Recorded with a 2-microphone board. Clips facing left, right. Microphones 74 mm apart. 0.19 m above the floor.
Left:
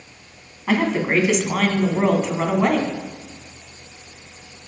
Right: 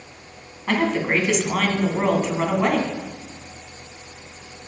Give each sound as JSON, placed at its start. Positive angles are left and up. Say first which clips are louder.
{"t": 0.7, "sound": "a woman speaking", "louder": "left 1 dB", "side_deg": 5, "distance_m": 1.3}